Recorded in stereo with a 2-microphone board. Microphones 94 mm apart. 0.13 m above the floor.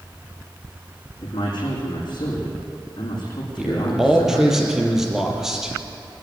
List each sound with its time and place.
1.2 s a man speaking: 55° left (ahead or behind), 7 m
3.6 s a man speaking: 5° right (ahead or behind), 3.5 m